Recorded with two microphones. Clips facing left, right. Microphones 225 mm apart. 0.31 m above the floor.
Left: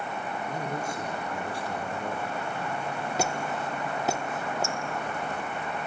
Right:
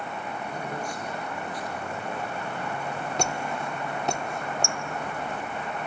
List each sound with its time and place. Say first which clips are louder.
0.5 s a man speaking: left 1 dB; 20° left (ahead or behind), 5 m; by 2.4 s 35° left (ahead or behind), 4.5 m
3.2 s a squeak: left 1 dB; 5° left (ahead or behind), 0.6 m